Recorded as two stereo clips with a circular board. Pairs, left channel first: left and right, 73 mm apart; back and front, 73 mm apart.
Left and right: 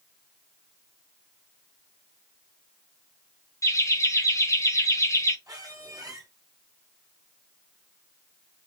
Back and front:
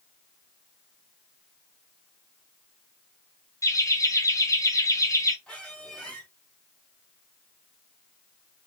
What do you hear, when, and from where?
3.6 s laughter: 135° left, 1.0 m
5.5 s a squeak: 110° right, 2 m